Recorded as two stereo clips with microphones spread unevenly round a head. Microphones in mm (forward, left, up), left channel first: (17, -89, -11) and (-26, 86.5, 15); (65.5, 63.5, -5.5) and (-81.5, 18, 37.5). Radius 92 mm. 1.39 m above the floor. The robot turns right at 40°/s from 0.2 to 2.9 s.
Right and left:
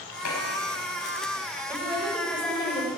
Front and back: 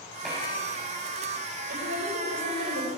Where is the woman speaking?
175° left, 6 m; by 2.9 s 135° right, 6 m.